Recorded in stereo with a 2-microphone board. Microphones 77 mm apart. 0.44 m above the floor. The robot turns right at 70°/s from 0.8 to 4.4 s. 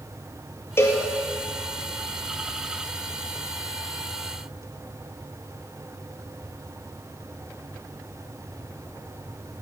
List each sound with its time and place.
0.8 s a cowbell: 30° left (ahead or behind), 2 m; by 1.0 s 45° left (ahead or behind), 2 m